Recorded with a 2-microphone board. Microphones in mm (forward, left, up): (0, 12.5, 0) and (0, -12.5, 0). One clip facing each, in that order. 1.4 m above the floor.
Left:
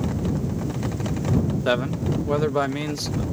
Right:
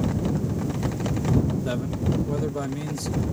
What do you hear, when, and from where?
1.6 s a man speaking: 50° left (ahead or behind)